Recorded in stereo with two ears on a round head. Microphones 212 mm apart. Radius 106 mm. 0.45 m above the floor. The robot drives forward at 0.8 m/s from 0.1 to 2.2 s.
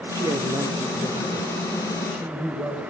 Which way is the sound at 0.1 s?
15° right (ahead or behind).